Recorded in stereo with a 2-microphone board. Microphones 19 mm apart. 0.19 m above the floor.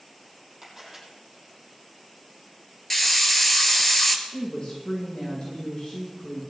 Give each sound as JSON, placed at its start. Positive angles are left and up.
{"t": 0.6, "sound": "a camera shutter", "side_deg": -15, "distance_m": 6.5}
{"t": 2.9, "sound": "a hiss", "side_deg": 10, "distance_m": 1.7}
{"t": 4.3, "sound": "a woman speaking", "side_deg": 55, "distance_m": 8.5}